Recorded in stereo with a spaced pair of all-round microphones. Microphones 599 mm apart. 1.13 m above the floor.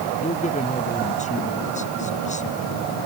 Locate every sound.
0.2 s a man speaking: 10° left (ahead or behind)